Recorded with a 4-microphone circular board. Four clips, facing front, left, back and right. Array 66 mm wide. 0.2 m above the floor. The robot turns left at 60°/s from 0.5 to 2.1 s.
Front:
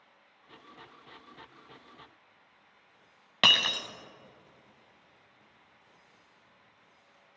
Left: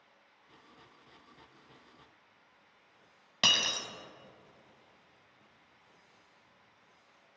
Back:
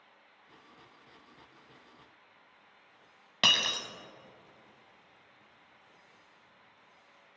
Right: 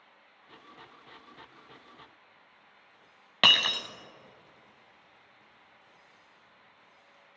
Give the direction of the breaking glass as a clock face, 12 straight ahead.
2 o'clock.